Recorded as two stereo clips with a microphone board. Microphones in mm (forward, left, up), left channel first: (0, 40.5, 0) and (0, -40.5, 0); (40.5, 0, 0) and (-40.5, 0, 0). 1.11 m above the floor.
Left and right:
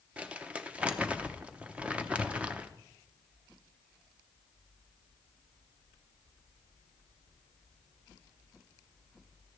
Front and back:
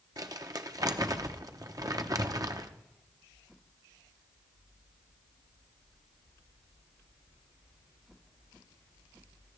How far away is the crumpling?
About 0.8 m.